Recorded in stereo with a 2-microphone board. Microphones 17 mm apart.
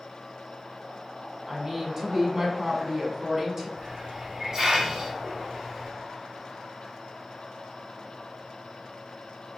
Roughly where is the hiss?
Right.